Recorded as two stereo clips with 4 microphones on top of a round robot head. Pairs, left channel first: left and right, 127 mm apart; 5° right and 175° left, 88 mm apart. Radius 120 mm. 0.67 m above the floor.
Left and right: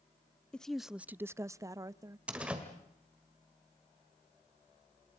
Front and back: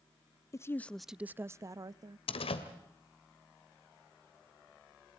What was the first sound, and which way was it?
A woman speaking, 10° left.